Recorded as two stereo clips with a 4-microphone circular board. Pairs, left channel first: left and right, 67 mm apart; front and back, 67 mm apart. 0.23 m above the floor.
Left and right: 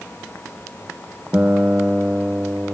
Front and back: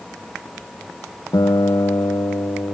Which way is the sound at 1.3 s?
20° right.